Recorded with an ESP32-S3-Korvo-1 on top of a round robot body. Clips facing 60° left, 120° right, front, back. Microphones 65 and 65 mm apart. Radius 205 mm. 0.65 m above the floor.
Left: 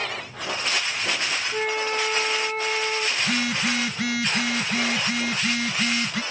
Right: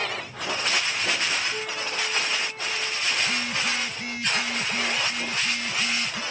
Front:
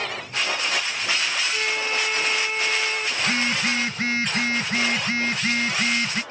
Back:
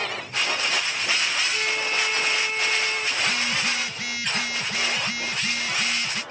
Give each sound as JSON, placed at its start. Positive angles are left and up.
{"t": 1.5, "sound": "a flute", "azimuth_deg": 85}
{"t": 3.2, "sound": "a phone buzzing", "azimuth_deg": 60}